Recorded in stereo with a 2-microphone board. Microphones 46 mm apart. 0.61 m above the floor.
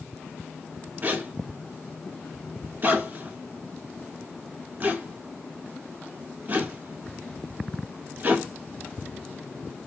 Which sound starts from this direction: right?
A zipper, at 1.0 s.